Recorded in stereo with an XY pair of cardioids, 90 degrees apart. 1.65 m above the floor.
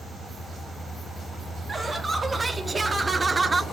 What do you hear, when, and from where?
1.7 s laughter: 25° right, 4 m